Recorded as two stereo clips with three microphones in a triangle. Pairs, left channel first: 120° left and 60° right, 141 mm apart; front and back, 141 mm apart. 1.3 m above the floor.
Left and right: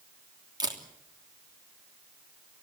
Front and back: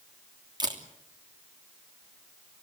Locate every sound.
0.6 s a camera shutter: 120° right, 3 m